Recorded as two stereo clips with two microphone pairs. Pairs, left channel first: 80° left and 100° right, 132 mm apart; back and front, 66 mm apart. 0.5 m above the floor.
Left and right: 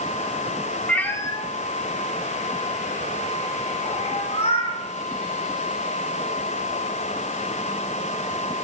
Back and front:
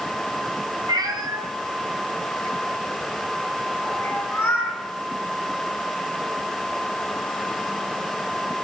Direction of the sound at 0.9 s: Straight ahead.